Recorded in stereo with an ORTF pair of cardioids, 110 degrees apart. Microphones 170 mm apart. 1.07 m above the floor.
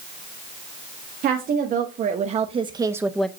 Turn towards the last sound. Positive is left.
turn(degrees=5)